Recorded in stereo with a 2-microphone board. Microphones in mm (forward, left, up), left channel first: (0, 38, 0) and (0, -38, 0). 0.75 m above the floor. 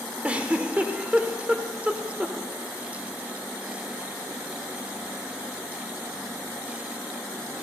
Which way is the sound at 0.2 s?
20° right (ahead or behind).